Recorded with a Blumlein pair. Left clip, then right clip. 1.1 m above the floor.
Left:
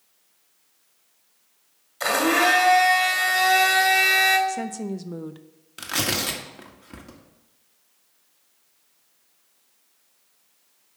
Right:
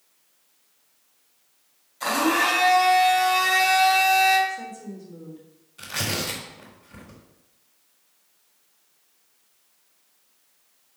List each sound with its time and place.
2.0 s a blender: 65° left, 2.5 m
4.5 s a woman speaking: 45° left, 0.7 m
5.8 s tearing paper: 55° left, 1.6 m